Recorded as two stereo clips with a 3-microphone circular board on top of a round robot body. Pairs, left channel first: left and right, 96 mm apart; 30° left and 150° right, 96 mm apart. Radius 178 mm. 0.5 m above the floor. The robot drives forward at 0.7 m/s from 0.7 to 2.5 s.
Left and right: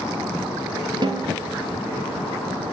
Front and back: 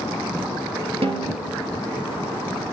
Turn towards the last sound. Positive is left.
turn(degrees=-145)